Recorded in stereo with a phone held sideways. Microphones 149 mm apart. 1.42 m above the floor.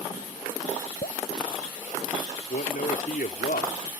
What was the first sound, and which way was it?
Dripping, 80° left.